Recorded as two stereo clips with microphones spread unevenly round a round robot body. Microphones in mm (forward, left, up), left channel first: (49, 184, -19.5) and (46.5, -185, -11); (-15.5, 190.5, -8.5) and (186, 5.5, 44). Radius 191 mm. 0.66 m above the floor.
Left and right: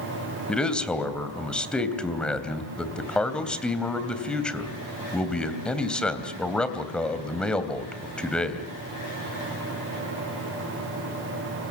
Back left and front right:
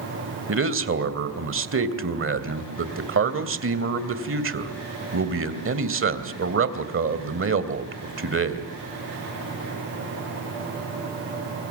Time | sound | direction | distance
0.5 | a man speaking | straight ahead | 3 m